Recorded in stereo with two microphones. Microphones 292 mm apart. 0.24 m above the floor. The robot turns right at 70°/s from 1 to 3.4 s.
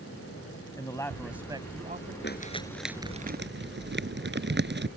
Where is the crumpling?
40° left (ahead or behind); by 4.9 s 40° right (ahead or behind).